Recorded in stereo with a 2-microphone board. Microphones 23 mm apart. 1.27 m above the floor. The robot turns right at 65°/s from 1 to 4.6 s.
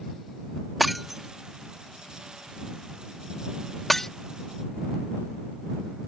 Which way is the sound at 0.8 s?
Centre (ahead or behind).